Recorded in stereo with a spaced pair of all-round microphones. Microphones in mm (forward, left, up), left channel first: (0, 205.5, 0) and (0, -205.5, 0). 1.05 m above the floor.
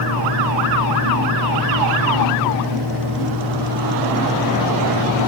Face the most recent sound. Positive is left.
turn(degrees=-70)  # may be behind; listen again after turning